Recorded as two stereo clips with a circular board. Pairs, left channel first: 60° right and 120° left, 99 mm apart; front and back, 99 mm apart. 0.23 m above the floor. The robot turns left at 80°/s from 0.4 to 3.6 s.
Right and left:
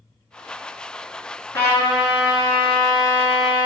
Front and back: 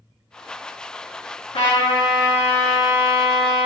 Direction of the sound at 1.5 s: 5° left.